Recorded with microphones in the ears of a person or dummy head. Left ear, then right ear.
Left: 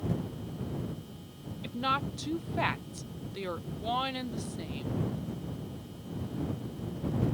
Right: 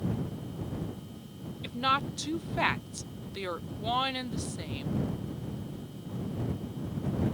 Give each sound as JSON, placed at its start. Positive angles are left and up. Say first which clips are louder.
{"t": 1.6, "sound": "a woman speaking", "louder": "right 3 dB", "side_deg": -15}